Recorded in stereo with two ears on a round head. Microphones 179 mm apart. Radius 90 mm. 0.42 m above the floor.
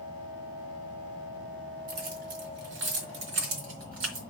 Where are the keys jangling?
50° right (ahead or behind), 3.5 m; by 4.2 s 80° right, 3.5 m.